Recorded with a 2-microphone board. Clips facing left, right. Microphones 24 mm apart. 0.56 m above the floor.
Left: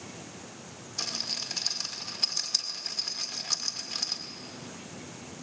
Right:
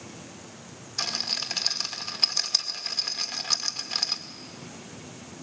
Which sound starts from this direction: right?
A rattle, at 1.0 s.